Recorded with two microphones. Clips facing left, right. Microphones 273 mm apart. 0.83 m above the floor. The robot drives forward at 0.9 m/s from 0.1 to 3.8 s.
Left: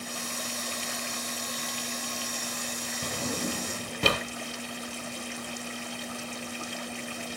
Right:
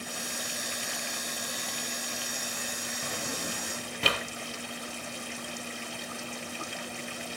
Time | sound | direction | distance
3.0 | a drawer | 40° left (ahead or behind) | 0.9 m